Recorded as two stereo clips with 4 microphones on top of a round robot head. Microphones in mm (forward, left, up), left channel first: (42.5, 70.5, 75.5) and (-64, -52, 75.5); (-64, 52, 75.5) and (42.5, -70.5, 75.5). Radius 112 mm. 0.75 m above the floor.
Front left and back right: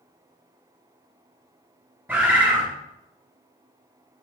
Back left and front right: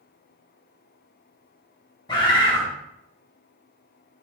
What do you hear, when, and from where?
2.1 s a bird: 165° left, 0.5 m